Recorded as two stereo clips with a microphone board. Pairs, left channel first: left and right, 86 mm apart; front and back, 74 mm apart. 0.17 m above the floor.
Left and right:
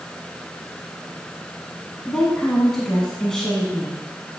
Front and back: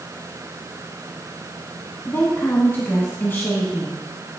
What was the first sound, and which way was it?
A woman speaking, 15° left.